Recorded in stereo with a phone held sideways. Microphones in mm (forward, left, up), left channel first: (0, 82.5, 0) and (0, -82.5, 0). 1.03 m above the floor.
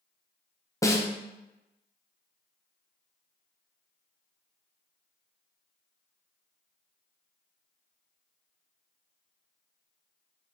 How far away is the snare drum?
About 0.6 m.